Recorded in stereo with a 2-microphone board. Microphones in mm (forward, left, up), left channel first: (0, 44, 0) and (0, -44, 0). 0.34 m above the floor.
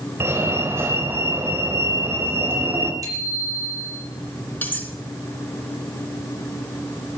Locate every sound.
0.2 s a fire alarm: 30° right (ahead or behind), 2.5 m
3.0 s a bicycle bell: 40° right (ahead or behind), 5.5 m
4.6 s cutlery clinking: 20° left (ahead or behind), 2.5 m